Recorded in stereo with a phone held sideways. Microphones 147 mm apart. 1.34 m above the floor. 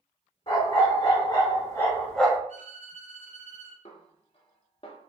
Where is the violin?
65° left (ahead or behind), 0.9 m.